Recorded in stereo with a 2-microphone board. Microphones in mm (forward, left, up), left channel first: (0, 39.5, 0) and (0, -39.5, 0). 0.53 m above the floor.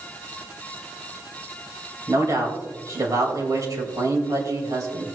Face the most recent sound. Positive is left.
turn(degrees=-45)  # may be behind; listen again after turning